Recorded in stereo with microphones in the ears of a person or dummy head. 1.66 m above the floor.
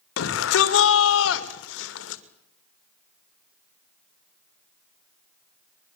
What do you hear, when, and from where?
0.2 s a shout: 70° left (ahead or behind), 2.5 m